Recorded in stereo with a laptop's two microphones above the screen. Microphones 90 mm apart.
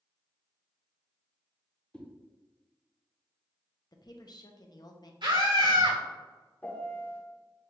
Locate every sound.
1.9 s a whoosh: 10° left (ahead or behind), 0.8 m
3.9 s a woman speaking: 50° left (ahead or behind), 0.6 m
5.2 s a scream: 60° right (ahead or behind), 1.9 m
6.6 s a piano: 20° left (ahead or behind), 0.5 m